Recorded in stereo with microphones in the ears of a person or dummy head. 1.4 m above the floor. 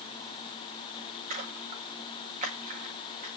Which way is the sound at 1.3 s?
40° right (ahead or behind).